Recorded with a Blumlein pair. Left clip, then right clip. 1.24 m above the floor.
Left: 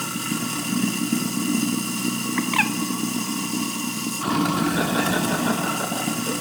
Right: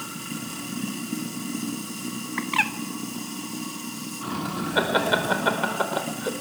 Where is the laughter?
25° right, 4.5 m.